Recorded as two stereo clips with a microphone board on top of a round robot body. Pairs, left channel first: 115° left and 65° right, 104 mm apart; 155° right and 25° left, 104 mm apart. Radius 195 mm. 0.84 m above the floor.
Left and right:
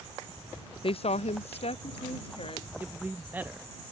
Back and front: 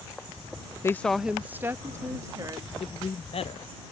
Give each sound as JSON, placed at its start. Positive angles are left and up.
{"t": 0.8, "sound": "a woman speaking", "azimuth_deg": 145}
{"t": 2.8, "sound": "a man speaking", "azimuth_deg": -140}